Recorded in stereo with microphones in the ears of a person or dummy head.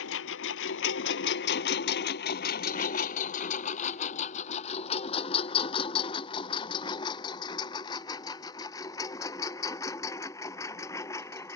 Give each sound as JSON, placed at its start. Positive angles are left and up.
{"t": 0.0, "sound": "a lawn mower", "side_deg": 75}